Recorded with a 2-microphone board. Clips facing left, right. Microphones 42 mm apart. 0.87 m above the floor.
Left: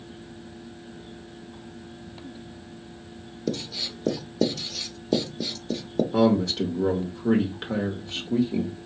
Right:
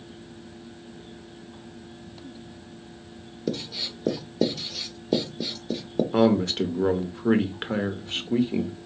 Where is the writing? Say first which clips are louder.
Even; 10° right (ahead or behind), 0.7 m.